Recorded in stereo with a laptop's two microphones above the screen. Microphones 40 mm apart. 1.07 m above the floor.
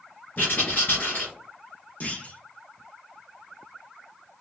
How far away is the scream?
No scream in this recording.